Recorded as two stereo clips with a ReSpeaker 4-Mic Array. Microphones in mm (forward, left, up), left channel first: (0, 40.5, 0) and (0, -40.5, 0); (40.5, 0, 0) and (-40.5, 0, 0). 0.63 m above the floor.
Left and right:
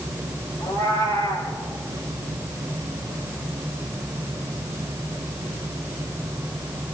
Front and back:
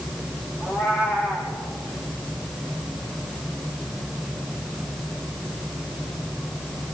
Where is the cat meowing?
110° left, 5.5 m.